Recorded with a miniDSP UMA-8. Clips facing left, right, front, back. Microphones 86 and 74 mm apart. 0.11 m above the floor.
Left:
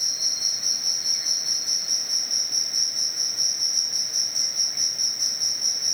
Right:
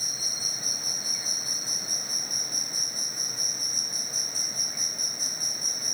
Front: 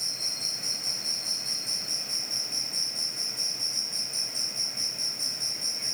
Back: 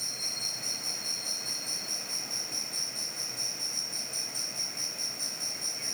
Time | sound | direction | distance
0.0 | an insect | 145° right | ?